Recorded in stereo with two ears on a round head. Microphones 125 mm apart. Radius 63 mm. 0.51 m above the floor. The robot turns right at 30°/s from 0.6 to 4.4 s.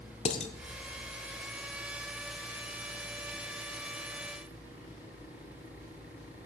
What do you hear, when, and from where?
0.2 s dishes clattering: 50° left (ahead or behind), 0.8 m